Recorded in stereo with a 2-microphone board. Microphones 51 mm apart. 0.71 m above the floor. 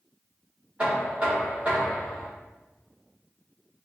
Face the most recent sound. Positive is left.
turn(degrees=-25)  # may be behind; listen again after turning